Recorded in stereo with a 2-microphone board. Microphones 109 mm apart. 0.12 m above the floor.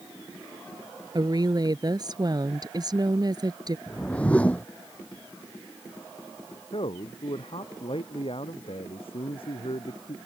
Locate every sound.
1.1 s a woman speaking: 40° right (ahead or behind)
3.9 s a whoosh: 10° left (ahead or behind)
6.7 s a man speaking: 55° left (ahead or behind)